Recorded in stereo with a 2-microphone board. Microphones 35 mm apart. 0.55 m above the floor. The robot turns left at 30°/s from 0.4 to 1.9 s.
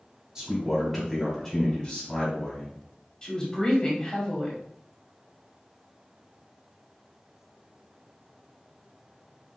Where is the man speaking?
175° right, 2 m; by 2.8 s 140° left, 2 m.